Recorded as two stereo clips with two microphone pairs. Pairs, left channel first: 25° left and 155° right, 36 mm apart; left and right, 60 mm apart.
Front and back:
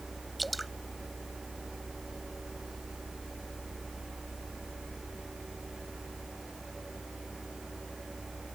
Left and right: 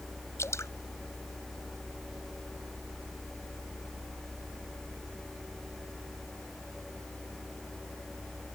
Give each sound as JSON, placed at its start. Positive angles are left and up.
{"t": 0.4, "sound": "dripping", "azimuth_deg": 115}